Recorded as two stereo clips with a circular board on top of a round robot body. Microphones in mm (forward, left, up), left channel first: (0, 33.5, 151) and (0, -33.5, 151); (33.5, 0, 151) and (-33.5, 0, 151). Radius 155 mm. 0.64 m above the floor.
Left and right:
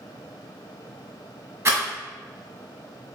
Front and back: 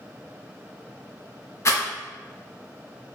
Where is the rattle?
45° right, 1.0 m.